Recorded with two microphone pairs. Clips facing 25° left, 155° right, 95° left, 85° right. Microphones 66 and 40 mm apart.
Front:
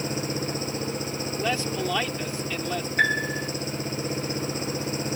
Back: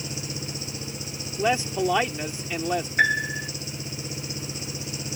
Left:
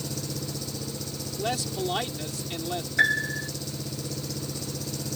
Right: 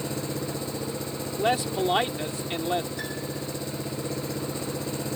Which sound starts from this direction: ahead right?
An engine running, at 0.0 s.